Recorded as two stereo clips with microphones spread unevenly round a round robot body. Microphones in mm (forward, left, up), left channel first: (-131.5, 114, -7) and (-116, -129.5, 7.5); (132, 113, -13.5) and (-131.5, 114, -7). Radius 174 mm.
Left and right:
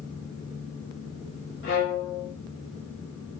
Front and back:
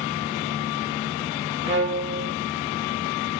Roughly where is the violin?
Behind left.